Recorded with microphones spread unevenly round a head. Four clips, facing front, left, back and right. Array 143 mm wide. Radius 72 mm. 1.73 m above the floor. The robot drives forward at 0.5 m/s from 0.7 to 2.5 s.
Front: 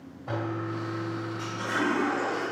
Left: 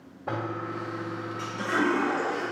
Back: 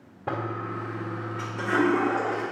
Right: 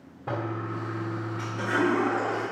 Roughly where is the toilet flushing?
Behind.